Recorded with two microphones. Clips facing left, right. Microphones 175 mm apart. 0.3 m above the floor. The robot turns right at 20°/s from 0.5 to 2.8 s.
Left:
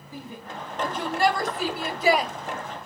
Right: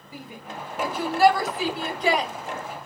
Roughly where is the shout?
Centre.